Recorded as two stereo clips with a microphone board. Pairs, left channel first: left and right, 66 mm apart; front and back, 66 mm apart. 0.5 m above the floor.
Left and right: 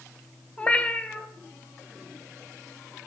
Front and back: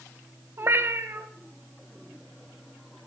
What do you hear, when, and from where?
0.6 s a cat meowing: 155° left, 0.6 m